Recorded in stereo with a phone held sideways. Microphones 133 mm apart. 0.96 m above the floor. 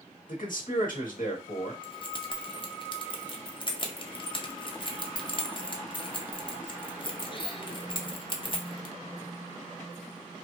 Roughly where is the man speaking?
Left.